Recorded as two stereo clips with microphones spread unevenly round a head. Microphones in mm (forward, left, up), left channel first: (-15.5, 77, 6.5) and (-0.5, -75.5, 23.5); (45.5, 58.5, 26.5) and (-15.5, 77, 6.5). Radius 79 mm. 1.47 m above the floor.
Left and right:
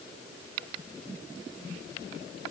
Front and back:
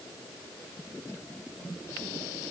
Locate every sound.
Only background noise.